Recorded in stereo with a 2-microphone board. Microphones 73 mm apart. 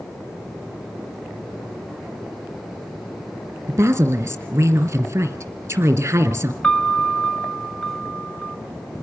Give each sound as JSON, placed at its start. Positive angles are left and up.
{"t": 3.7, "sound": "a woman speaking", "side_deg": -35, "distance_m": 1.9}
{"t": 6.6, "sound": "a piano", "side_deg": 10, "distance_m": 0.7}